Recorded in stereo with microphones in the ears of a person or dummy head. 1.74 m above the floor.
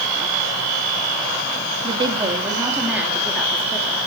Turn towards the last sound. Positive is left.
turn(degrees=10)  # may be behind; listen again after turning